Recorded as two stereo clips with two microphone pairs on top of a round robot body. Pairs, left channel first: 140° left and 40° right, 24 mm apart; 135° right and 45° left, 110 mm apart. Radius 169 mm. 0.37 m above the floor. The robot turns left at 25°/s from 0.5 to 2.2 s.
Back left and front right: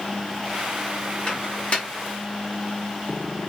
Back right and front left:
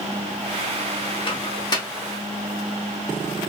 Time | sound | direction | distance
1.3 | a microwave | 170° right | 1.1 m